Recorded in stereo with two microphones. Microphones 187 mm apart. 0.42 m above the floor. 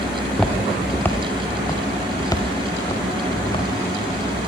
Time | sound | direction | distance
0.1 | footsteps | centre (ahead or behind) | 3.5 m